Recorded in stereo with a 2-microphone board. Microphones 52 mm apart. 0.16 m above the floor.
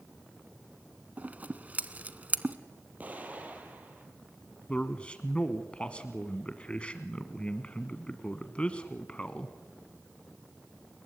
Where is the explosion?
30° right (ahead or behind), 3 m.